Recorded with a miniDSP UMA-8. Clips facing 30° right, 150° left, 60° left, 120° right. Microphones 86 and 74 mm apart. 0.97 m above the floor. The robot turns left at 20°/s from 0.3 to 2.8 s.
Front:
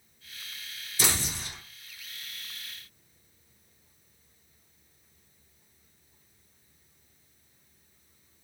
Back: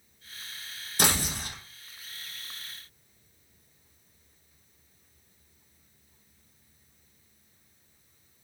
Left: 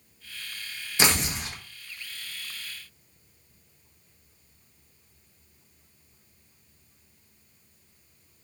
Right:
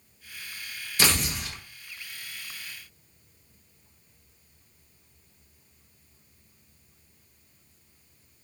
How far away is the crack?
I don't hear a crack.